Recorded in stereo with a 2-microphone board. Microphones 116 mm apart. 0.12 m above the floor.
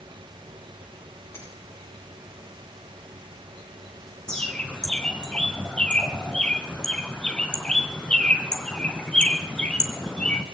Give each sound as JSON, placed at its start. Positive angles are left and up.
{"t": 1.3, "sound": "a finger snap", "side_deg": 30, "distance_m": 7.5}
{"t": 4.3, "sound": "a bird", "side_deg": 10, "distance_m": 1.5}